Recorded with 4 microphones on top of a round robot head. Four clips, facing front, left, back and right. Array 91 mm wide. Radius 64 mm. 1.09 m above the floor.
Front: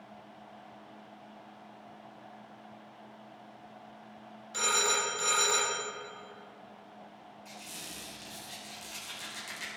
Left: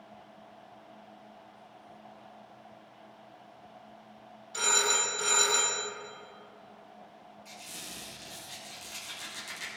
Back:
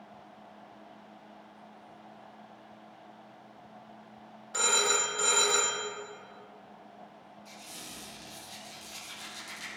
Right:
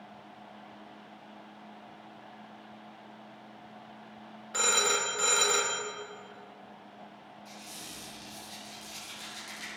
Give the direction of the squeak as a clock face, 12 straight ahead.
11 o'clock.